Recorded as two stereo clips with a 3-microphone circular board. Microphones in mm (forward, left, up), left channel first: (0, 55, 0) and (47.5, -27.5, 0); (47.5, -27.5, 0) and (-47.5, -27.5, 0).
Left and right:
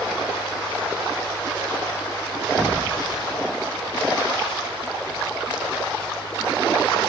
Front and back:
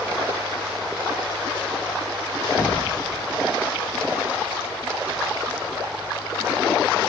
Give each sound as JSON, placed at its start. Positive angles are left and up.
{"t": 2.6, "sound": "an explosion", "azimuth_deg": 10}